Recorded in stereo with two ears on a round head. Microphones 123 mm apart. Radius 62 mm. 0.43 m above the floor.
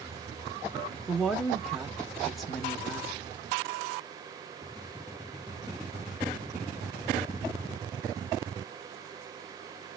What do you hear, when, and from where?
1.1 s a woman speaking: centre (ahead or behind), 0.7 m